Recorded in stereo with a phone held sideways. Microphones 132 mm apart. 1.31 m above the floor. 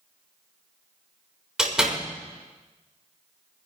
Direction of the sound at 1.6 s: 5° right (ahead or behind).